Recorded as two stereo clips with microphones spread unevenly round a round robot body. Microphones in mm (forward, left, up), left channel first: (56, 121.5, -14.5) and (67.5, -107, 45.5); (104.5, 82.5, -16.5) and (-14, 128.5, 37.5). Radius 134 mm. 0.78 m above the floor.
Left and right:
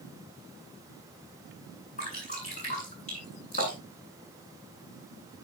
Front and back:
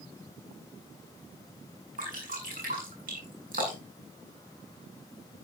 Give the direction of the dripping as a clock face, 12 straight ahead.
7 o'clock.